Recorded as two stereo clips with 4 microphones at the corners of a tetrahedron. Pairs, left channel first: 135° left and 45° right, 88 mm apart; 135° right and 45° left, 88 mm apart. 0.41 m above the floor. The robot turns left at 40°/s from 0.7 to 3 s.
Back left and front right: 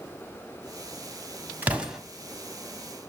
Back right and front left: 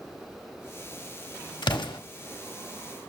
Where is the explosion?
115° right, 1.1 m; by 2.0 s 130° right, 1.1 m.